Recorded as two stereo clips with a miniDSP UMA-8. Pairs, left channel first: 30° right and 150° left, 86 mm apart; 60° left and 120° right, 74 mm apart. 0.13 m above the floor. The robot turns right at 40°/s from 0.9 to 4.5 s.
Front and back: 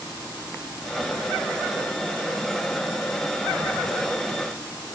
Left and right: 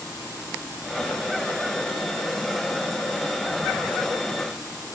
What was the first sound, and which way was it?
Only background noise.